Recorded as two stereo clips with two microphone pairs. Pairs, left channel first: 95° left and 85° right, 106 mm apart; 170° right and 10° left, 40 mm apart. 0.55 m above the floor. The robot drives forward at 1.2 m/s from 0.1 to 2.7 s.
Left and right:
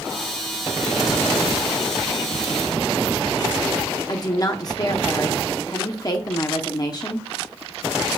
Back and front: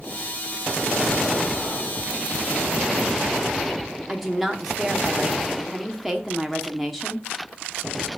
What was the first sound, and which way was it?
A woman speaking, 95° left.